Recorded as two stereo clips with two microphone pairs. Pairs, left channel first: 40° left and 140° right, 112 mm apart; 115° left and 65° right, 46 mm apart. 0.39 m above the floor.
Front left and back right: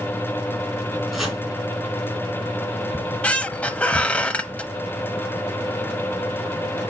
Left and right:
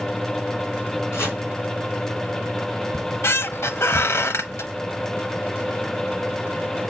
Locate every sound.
1.1 s chopping: 130° left, 3.5 m
2.9 s a squeak: 115° left, 0.7 m